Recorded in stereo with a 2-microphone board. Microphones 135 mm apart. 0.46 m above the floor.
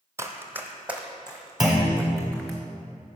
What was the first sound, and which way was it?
Running footsteps, 20° right (ahead or behind).